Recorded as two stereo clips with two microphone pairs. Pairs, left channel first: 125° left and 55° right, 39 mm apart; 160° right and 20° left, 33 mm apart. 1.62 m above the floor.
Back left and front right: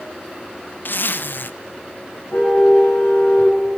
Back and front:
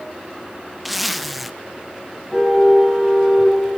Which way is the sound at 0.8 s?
105° left.